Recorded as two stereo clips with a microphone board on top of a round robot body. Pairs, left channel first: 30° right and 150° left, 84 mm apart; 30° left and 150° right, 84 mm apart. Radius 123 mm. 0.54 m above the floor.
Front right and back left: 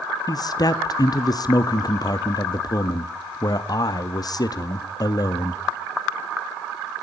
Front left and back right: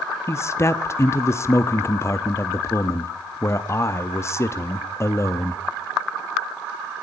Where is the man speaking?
15° right, 0.9 m.